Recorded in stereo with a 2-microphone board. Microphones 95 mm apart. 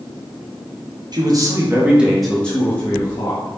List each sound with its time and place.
1.1 s a man speaking: 50° right (ahead or behind), 0.8 m; by 3.6 s 35° left (ahead or behind), 1.3 m